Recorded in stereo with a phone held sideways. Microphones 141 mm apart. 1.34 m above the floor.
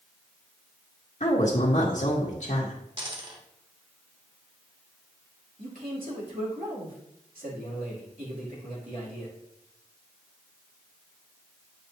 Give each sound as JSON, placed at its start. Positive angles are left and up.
{"t": 1.2, "sound": "a woman speaking", "side_deg": 55, "distance_m": 1.2}
{"t": 3.0, "sound": "a dropped coin", "side_deg": -35, "distance_m": 1.3}
{"t": 5.6, "sound": "a man speaking", "side_deg": -75, "distance_m": 3.0}